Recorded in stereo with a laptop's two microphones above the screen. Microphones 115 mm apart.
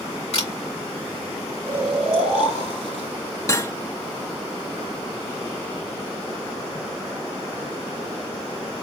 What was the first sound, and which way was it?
A camera shutter, 70° left (ahead or behind).